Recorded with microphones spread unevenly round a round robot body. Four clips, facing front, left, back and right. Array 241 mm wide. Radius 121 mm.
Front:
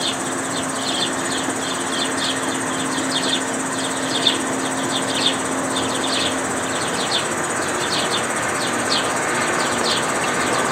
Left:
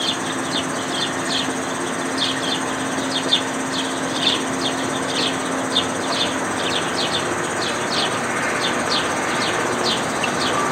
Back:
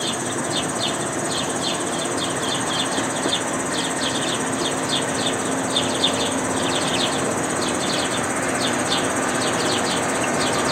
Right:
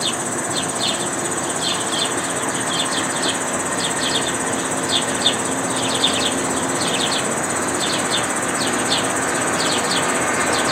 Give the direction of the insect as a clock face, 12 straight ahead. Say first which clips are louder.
Even, front 1 dB; 4 o'clock.